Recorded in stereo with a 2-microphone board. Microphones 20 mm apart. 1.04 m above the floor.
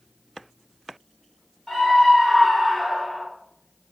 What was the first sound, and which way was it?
A scream, 25° left (ahead or behind).